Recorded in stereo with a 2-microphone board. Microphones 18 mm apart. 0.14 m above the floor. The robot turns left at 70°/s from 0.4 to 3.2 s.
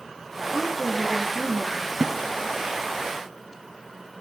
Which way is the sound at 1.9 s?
20° right (ahead or behind).